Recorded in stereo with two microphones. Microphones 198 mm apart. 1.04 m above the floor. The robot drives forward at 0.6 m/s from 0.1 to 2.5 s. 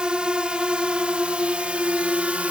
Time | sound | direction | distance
0.0 | a drone | 5° right (ahead or behind) | ?